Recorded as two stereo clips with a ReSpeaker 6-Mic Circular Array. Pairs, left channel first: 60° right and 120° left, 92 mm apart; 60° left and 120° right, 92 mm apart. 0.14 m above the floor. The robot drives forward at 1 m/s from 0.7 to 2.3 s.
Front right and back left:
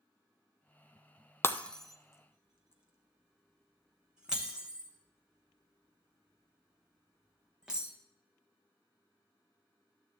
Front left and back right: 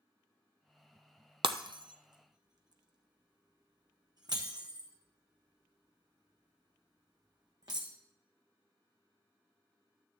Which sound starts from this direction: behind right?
Breaking glass, at 1.4 s.